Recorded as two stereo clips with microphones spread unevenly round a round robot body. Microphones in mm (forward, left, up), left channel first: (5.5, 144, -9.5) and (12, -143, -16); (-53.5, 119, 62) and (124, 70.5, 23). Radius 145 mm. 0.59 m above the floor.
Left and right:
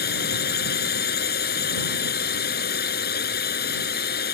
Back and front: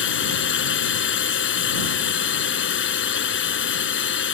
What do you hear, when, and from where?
0.0 s a drone: 150° left